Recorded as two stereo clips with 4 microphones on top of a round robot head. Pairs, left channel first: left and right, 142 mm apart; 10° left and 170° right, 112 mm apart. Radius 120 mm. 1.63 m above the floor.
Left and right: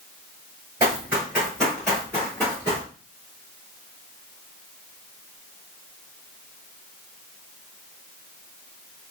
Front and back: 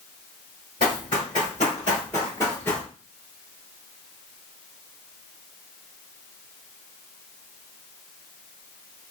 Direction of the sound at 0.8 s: 30° right.